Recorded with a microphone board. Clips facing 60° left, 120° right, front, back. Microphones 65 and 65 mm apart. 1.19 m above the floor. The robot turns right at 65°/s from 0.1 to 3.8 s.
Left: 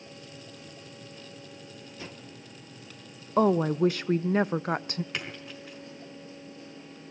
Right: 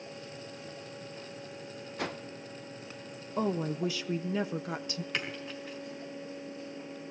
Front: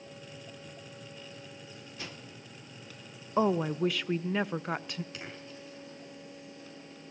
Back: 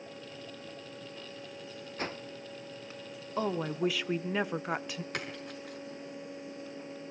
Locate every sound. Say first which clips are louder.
2.0 s a whoosh: right 9 dB, back 8 dB; 135° right, 0.7 m; by 2.2 s 120° right, 0.7 m
3.4 s a woman speaking: left 8 dB, front 4 dB; 65° left, 0.7 m; by 5.0 s 95° left, 0.7 m
5.1 s a splash: right 1 dB, back 5 dB; 150° left, 5 m